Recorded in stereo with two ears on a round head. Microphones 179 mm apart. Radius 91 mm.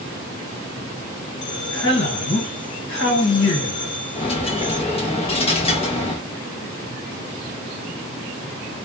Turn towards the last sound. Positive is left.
turn(degrees=30)  # may be behind; listen again after turning